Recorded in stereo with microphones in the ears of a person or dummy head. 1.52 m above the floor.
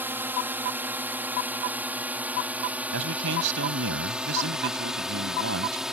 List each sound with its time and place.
0.0 s a drone: 5° right (ahead or behind); by 5.9 s centre (ahead or behind)
2.9 s a man speaking: 65° right (ahead or behind)